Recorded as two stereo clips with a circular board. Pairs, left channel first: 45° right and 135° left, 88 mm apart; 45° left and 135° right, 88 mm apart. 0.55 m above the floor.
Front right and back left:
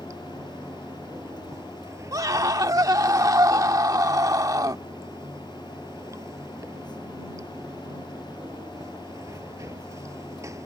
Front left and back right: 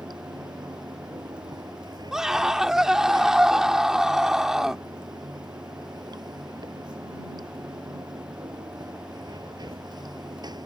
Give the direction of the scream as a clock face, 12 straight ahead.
7 o'clock.